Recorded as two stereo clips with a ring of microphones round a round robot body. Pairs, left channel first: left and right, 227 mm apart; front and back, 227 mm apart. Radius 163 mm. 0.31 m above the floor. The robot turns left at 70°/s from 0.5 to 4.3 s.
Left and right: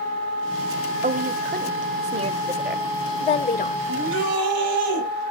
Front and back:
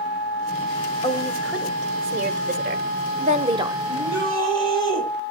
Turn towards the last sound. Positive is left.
turn(degrees=-125)